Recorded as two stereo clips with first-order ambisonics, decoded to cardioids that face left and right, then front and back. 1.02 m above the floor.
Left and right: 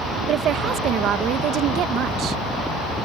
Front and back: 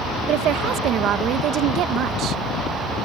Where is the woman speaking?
135° right.